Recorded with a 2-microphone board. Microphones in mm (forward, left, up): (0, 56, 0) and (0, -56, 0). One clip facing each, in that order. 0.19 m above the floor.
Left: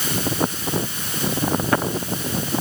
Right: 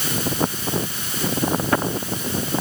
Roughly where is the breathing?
No breathing in this recording.